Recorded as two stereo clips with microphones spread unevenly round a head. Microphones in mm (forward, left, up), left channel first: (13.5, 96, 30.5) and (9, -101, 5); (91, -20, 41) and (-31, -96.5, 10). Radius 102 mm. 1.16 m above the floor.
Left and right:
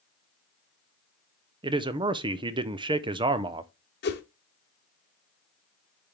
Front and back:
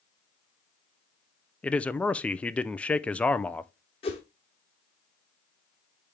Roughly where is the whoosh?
Left.